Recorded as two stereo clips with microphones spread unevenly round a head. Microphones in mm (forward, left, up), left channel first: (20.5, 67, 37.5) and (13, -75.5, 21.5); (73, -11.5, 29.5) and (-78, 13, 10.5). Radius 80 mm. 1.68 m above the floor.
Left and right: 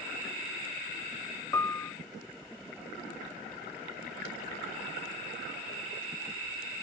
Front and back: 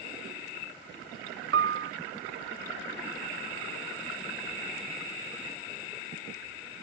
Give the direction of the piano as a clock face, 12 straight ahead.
7 o'clock.